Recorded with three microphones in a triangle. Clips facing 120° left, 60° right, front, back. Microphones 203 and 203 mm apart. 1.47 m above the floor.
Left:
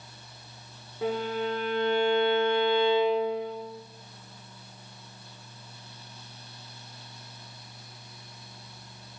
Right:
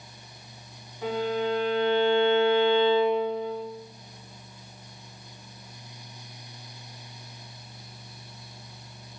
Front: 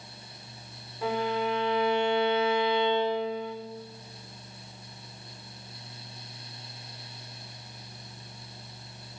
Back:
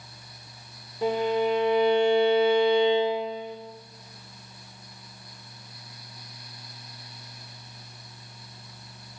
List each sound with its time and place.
1.0 s a violin: 125° left, 3 m